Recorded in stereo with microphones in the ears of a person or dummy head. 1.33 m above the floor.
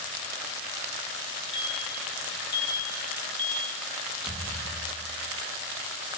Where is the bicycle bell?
30° left (ahead or behind), 8 m; by 3.8 s 5° left (ahead or behind), 6.5 m.